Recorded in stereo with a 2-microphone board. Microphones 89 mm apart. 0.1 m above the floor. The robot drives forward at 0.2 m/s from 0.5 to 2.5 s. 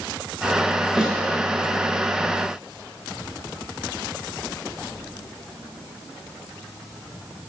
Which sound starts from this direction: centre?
A snare drum, at 1.0 s.